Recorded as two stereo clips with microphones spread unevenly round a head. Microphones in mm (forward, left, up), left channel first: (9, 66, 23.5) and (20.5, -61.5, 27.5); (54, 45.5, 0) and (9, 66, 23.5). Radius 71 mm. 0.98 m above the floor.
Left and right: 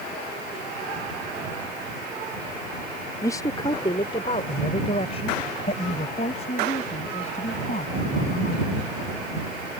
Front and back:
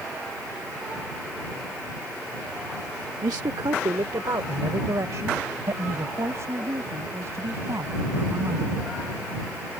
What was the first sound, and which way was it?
A man speaking, 165° left.